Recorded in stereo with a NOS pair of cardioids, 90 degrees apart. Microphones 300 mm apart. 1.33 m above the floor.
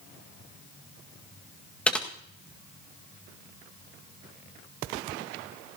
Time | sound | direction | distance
1.9 | typing on a keyboard | 5° left | 1.7 m